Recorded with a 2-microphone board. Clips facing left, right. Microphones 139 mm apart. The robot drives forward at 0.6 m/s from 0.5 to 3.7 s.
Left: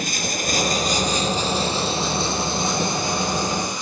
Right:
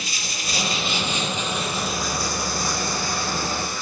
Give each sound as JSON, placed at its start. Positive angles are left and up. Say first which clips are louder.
{"t": 0.0, "sound": "running water", "louder": "left 8 dB", "side_deg": 50, "distance_m": 1.1}